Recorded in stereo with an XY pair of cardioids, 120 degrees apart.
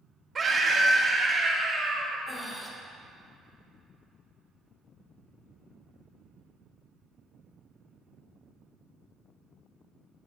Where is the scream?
25° right, 1.4 m; by 2.2 s 5° right, 2.5 m.